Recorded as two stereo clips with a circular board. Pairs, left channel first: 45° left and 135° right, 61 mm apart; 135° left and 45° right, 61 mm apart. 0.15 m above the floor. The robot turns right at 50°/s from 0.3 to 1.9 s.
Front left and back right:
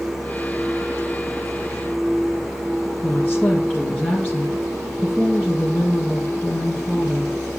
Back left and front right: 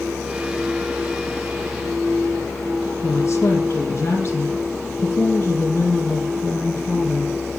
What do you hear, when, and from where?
3.0 s a woman speaking: 100° left, 1.9 m